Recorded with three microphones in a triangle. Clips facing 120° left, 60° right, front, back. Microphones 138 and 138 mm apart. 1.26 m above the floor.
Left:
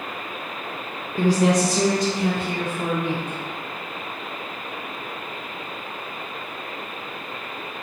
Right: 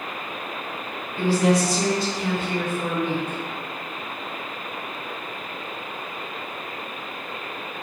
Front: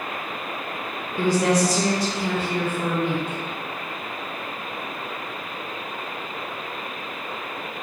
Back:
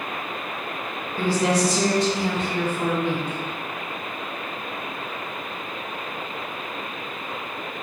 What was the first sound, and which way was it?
A woman speaking, 65° left.